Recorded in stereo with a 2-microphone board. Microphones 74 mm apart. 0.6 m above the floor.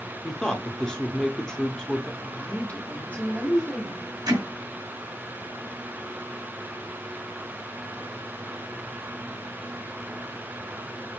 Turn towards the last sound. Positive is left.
turn(degrees=-70)  # may be behind; listen again after turning